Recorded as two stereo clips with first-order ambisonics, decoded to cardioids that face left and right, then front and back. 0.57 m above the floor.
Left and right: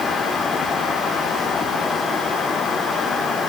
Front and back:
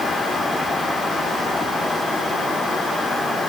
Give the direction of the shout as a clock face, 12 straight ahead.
I don't hear a shout.